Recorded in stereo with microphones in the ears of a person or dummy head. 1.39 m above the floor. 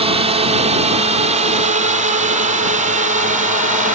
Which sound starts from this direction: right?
A drone, at 0.0 s.